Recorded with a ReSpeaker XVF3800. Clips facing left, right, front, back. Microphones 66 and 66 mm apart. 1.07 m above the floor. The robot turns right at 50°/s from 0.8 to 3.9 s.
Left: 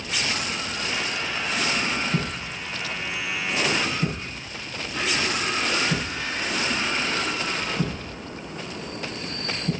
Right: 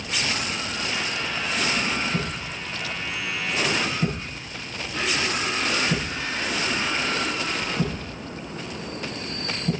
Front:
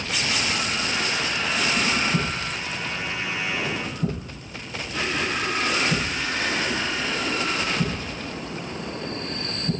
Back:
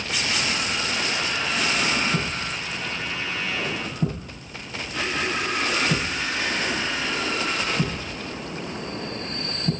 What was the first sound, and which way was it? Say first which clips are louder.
A thud: left 1 dB, front 1 dB; 110° left.